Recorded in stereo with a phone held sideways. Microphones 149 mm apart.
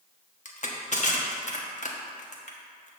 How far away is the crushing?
About 1.1 m.